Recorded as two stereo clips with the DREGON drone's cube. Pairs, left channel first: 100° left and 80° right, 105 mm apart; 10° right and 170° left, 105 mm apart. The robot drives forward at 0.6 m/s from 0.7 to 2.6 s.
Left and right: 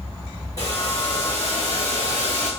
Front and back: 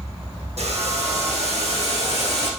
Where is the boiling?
160° left, 4 m; by 2.5 s 165° left, 5 m.